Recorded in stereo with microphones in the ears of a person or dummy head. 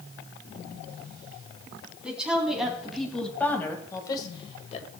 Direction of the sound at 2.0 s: 5° right (ahead or behind).